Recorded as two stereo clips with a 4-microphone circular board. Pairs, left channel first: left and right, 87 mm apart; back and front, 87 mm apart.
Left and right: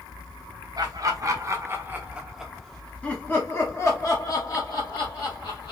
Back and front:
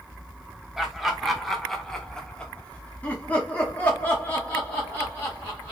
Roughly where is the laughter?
Right.